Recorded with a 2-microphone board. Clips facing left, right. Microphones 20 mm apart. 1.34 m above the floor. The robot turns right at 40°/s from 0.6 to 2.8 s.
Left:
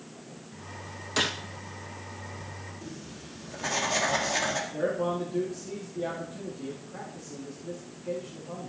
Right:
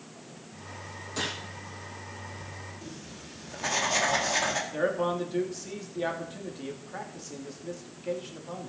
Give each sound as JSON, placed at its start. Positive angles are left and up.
{"t": 1.2, "sound": "a gunshot", "side_deg": 45, "distance_m": 1.4}
{"t": 2.8, "sound": "writing", "side_deg": -10, "distance_m": 1.9}
{"t": 4.7, "sound": "a man speaking", "side_deg": -55, "distance_m": 2.5}